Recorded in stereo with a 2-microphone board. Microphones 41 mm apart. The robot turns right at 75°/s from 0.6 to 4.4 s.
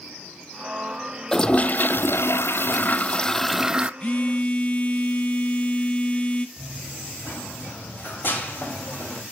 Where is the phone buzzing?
85° left, 0.7 m; by 6.5 s 115° left, 0.7 m.